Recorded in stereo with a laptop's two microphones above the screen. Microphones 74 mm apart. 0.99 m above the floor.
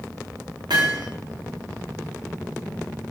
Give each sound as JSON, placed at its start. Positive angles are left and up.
{"t": 0.7, "sound": "hammering", "side_deg": -80, "distance_m": 2.0}